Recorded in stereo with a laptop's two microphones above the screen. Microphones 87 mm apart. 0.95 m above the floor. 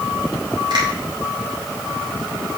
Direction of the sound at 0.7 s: 65° right (ahead or behind).